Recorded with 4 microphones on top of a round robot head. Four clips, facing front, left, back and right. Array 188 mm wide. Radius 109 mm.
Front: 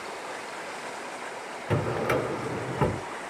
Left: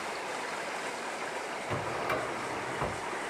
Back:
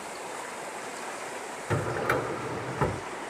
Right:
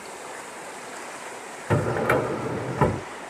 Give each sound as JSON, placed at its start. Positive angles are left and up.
{"t": 1.7, "sound": "a drawer", "azimuth_deg": -70}